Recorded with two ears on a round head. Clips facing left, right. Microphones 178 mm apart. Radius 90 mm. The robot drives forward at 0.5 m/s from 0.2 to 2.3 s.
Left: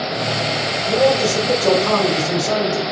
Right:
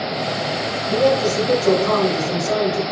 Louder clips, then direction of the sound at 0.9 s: Left 1 dB; 70° left (ahead or behind).